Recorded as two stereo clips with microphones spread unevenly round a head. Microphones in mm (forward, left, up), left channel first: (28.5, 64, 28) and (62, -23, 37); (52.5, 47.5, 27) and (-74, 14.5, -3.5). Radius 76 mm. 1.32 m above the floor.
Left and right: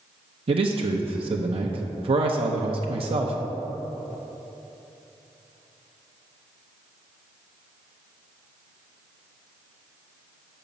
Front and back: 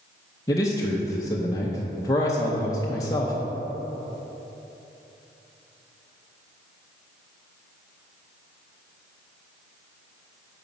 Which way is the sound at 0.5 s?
60° right.